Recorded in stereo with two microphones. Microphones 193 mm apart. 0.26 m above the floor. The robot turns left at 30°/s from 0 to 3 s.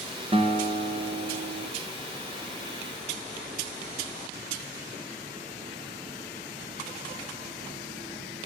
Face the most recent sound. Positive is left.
turn(degrees=-110)